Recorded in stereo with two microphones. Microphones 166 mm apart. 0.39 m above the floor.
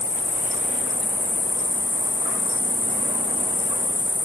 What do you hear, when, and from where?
0.0 s an insect: 60° left (ahead or behind), 3.5 m